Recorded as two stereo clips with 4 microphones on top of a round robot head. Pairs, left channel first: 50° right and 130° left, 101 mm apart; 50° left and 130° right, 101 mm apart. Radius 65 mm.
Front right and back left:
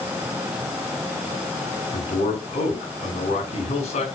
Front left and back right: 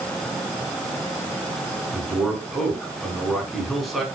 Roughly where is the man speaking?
Ahead right.